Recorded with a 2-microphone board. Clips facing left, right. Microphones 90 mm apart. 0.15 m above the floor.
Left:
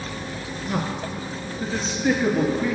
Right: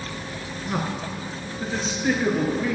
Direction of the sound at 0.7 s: 25° right (ahead or behind).